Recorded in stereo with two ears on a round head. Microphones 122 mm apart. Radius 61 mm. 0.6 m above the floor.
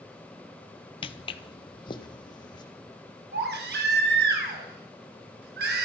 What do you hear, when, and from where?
1.0 s footsteps: 40° left (ahead or behind), 0.8 m; by 2.6 s 35° left (ahead or behind), 1.9 m
3.3 s a baby crying: 85° right, 4 m